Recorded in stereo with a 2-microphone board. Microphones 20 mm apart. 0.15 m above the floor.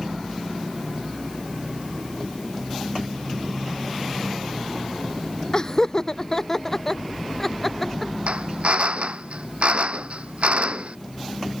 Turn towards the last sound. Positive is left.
turn(degrees=-75)  # may be behind; listen again after turning